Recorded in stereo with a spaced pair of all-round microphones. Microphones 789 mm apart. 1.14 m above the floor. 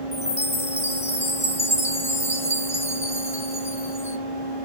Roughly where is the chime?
Centre.